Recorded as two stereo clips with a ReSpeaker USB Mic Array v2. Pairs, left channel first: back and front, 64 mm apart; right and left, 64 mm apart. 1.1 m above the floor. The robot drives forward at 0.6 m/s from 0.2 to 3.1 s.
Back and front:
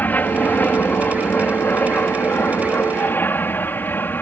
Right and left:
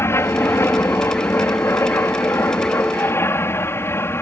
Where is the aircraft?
125° right; by 4.2 s 130° right.